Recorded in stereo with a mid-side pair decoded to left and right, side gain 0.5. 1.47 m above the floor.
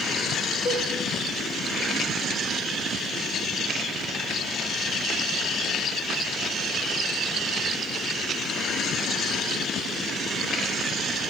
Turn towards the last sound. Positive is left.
turn(degrees=70)